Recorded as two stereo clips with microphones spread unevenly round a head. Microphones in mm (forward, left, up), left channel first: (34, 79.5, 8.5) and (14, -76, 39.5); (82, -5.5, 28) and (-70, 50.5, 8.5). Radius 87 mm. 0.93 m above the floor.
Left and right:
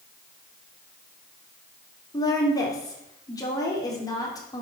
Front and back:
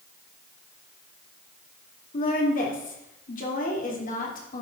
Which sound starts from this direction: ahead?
A woman speaking, at 2.1 s.